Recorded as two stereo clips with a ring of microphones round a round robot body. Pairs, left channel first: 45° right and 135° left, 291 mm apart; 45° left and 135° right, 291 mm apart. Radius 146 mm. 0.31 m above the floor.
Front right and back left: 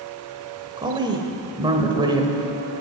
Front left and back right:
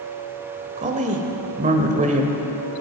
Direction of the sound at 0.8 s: 165° right.